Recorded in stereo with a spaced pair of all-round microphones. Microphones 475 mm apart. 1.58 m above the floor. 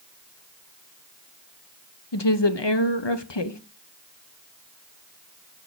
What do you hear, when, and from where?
2.1 s a woman speaking: 60° left (ahead or behind), 0.9 m